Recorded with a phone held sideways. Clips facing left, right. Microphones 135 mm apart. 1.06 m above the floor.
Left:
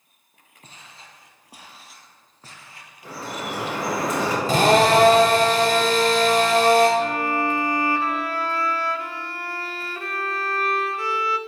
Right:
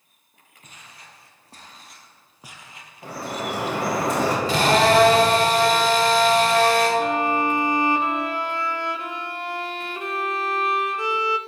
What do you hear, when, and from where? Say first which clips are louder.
0.6 s footsteps: left 1 dB; 30° left (ahead or behind), 1.6 m; by 3.9 s 45° right (ahead or behind), 1.8 m
3.0 s dripping: right 2 dB; 70° right (ahead or behind), 4 m
4.5 s a drill: left 3 dB; 45° left (ahead or behind), 3 m
7.0 s a violin: right 2 dB; 20° right (ahead or behind), 0.6 m